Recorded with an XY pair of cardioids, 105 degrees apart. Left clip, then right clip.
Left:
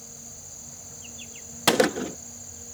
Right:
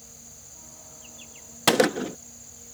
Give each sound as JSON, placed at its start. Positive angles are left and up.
{"t": 0.0, "sound": "an insect", "azimuth_deg": 25}
{"t": 1.7, "sound": "a gunshot", "azimuth_deg": -5}